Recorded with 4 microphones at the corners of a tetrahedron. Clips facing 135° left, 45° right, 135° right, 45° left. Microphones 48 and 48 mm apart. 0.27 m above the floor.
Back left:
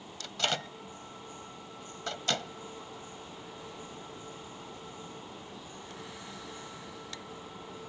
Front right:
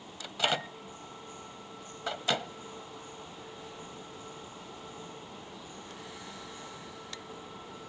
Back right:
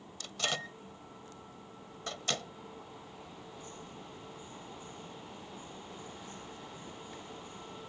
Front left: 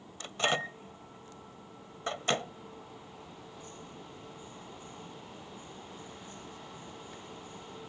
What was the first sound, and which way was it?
A microwave, 25° left.